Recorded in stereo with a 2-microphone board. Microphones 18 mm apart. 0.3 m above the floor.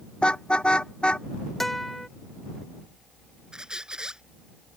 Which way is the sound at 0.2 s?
80° left.